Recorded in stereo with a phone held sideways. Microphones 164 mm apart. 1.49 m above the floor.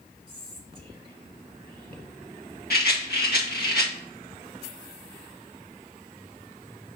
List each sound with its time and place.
0.3 s whispering: 30° right (ahead or behind), 1.8 m
2.7 s a rattle: 70° left (ahead or behind), 1.6 m